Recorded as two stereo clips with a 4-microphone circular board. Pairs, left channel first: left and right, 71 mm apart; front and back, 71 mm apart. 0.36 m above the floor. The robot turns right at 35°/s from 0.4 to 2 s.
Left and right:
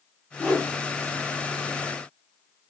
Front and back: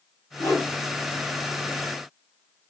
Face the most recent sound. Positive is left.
turn(degrees=65)